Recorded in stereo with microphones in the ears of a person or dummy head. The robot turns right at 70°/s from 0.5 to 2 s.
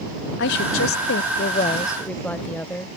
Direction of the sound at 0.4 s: 70° left.